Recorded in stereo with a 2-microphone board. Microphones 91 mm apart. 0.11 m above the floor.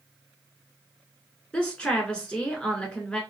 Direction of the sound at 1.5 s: 10° left (ahead or behind).